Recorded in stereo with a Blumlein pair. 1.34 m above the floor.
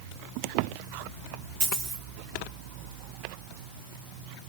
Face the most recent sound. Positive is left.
turn(degrees=-45)